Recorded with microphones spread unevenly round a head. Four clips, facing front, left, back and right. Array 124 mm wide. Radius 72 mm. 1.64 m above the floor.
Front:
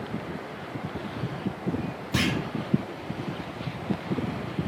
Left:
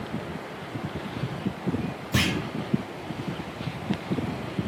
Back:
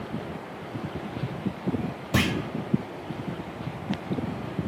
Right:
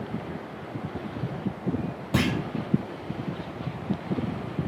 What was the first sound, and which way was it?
A clunk, 170° right.